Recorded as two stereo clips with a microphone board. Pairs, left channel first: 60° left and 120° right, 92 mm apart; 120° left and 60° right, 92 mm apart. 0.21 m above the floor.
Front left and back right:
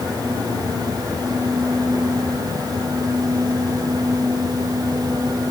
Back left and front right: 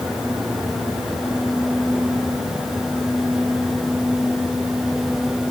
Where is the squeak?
No squeak in this recording.